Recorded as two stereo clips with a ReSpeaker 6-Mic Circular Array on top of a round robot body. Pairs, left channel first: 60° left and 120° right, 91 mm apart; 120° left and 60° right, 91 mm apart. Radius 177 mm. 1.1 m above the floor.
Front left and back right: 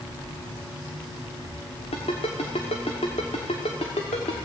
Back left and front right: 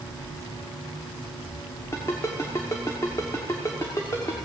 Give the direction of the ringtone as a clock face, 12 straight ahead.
10 o'clock.